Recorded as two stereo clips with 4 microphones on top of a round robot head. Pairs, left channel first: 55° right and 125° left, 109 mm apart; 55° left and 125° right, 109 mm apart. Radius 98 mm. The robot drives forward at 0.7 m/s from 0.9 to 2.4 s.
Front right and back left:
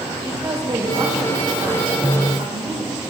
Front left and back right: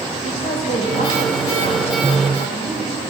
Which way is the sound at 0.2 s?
65° left.